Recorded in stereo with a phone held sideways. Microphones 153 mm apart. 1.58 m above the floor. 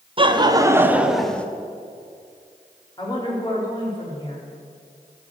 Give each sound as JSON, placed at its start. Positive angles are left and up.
{"t": 0.2, "sound": "laughter", "side_deg": -35, "distance_m": 1.0}
{"t": 3.0, "sound": "a woman speaking", "side_deg": 30, "distance_m": 4.0}